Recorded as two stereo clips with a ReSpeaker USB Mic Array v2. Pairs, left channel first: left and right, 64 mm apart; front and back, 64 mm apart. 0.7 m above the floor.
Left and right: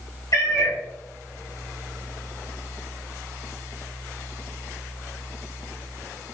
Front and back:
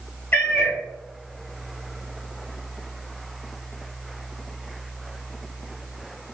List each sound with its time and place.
0.3 s a cat meowing: 55° left, 1.4 m